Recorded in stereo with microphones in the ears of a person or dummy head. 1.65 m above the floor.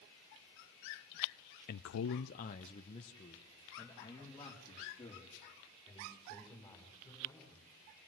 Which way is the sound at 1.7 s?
45° left (ahead or behind).